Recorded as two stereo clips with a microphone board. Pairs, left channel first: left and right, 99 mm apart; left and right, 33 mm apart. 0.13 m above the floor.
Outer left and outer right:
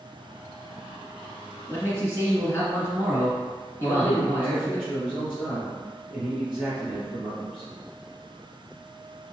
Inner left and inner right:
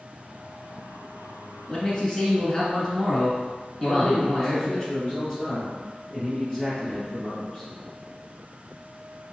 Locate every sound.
1.7 s a man speaking: 25° left (ahead or behind), 1.4 m
3.8 s a man speaking: 10° right (ahead or behind), 1.6 m